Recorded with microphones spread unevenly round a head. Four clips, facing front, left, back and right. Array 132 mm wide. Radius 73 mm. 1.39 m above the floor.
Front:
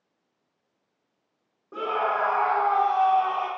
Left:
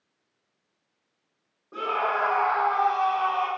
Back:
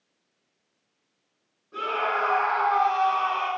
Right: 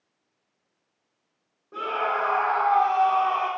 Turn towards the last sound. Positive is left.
turn(degrees=-85)